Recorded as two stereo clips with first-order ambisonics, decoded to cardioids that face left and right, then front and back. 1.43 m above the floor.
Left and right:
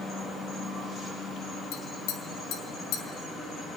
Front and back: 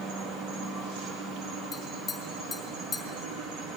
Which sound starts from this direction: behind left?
An insect, at 0.0 s.